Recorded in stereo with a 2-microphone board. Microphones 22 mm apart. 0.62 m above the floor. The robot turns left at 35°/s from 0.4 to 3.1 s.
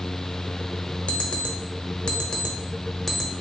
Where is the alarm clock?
80° left, 0.8 m; by 3.3 s 10° left (ahead or behind), 0.8 m.